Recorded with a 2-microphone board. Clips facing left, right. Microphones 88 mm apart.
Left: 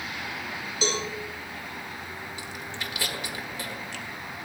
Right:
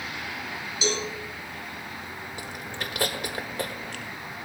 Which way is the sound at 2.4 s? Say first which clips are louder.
Right 1 dB; 55° right (ahead or behind).